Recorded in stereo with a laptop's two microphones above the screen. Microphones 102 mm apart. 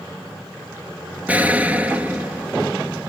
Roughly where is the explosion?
Centre.